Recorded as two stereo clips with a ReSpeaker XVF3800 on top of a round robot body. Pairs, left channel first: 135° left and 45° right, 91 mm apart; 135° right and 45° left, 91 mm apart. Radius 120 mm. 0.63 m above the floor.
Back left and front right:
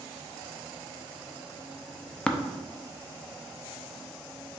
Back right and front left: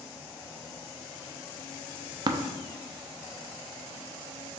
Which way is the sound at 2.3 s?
60° left.